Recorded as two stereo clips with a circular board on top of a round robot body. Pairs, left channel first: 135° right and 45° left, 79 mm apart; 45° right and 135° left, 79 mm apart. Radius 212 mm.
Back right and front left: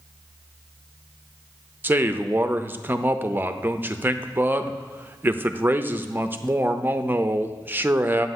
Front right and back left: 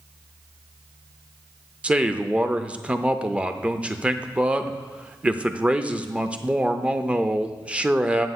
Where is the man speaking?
75° left, 0.8 m.